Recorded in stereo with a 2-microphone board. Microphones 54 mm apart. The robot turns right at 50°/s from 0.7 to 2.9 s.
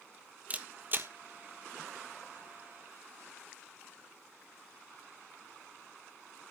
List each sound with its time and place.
0.5 s a camera shutter: 30° right (ahead or behind), 0.6 m; by 1.1 s 45° right (ahead or behind), 0.6 m